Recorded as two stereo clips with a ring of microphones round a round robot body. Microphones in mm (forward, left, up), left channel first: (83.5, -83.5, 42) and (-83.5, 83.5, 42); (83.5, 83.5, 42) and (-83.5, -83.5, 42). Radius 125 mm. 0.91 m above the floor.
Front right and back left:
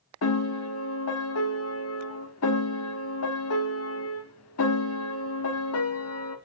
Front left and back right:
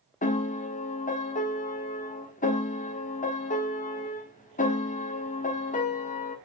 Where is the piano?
15° right, 1.4 m.